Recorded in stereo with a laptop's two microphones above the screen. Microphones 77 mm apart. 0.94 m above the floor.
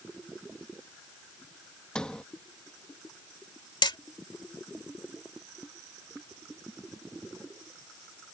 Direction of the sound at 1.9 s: 15° left (ahead or behind).